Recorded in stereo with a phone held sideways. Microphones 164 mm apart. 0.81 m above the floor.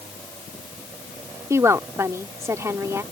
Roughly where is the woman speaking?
Centre.